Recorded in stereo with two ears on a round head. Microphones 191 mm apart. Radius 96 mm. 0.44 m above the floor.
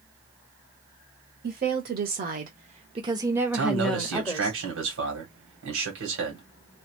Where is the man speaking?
65° right (ahead or behind), 2.5 m.